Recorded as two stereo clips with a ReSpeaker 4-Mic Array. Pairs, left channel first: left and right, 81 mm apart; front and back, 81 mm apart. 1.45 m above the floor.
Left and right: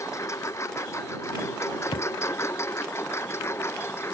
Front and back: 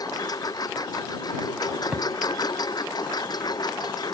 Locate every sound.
0.0 s a lawn mower: 40° left; by 4.1 s 30° left
1.9 s a thud: 105° left